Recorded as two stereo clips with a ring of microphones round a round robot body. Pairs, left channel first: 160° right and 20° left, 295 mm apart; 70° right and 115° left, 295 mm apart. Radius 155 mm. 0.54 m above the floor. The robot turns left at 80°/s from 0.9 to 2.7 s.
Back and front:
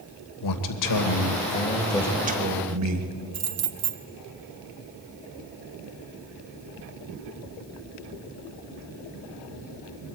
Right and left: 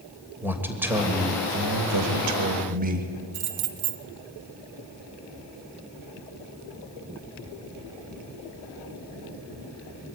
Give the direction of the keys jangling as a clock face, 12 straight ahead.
10 o'clock.